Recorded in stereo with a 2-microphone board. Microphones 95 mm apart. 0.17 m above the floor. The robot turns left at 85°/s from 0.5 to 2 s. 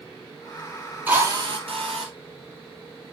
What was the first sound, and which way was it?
A drill, 20° right.